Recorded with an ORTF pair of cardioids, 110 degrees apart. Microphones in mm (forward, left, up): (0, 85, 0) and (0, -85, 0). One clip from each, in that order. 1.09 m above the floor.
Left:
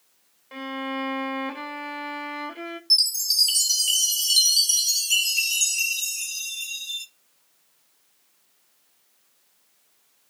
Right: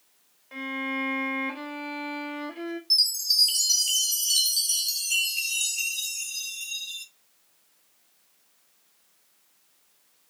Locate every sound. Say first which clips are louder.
0.5 s a violin: even; 20° left, 1.2 m
2.9 s a chime: left 2 dB; 20° left, 1.1 m